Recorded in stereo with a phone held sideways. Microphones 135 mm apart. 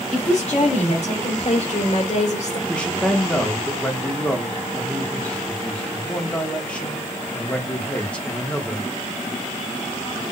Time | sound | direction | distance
0.1 | a woman speaking | 55° left (ahead or behind) | 3.5 m
2.7 | a man speaking | 10° left (ahead or behind) | 1.0 m